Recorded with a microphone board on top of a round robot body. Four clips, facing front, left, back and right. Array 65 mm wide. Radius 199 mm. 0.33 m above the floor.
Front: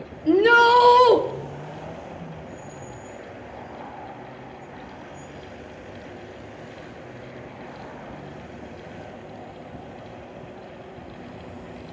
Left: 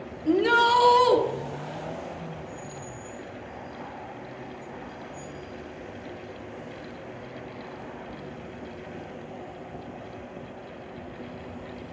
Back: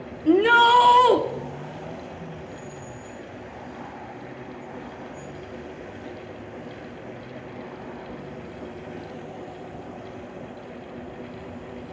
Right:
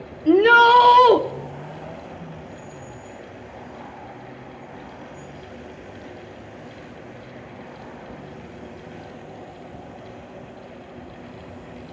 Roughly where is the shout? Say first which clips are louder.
Right 8 dB, front 1 dB; behind right.